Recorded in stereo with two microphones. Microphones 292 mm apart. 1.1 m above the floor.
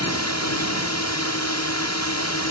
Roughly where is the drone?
Left.